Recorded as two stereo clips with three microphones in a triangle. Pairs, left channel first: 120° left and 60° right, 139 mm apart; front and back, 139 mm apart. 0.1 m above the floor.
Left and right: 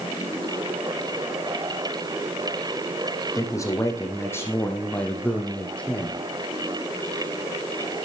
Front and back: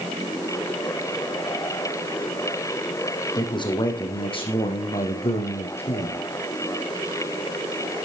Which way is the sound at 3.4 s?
55° left.